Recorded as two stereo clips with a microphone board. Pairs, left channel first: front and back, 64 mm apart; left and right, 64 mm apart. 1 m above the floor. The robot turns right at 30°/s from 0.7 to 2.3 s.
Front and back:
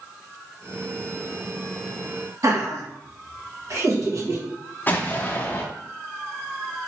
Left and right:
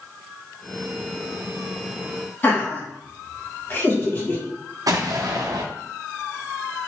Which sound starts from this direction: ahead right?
An explosion, at 4.9 s.